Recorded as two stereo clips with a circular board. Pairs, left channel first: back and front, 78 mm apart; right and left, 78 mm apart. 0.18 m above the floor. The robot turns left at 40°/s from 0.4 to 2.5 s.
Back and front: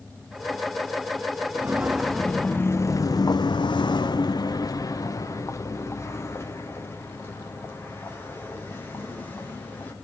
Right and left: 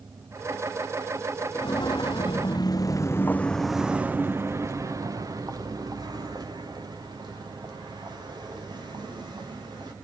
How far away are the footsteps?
About 1.1 m.